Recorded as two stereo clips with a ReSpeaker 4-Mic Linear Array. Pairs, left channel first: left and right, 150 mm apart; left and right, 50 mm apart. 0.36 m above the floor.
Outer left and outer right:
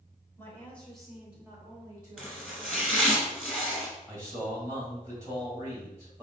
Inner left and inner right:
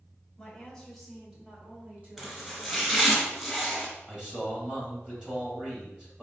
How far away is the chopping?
About 1.6 m.